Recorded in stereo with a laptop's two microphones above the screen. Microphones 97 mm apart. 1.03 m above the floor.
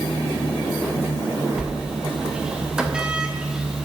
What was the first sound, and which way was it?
A sliding door, 10° right (ahead or behind).